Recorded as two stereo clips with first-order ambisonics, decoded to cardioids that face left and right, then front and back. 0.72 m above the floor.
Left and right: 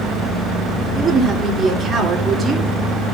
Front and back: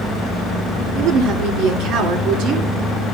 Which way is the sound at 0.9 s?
160° right.